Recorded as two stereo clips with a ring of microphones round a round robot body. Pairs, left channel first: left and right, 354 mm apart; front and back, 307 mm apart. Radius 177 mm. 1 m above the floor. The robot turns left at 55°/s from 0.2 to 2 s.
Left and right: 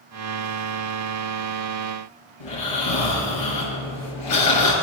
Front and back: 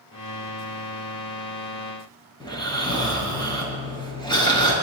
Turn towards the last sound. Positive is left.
turn(degrees=75)